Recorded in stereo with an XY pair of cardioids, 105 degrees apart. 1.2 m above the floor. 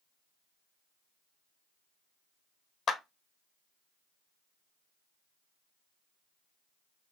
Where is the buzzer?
No buzzer in this recording.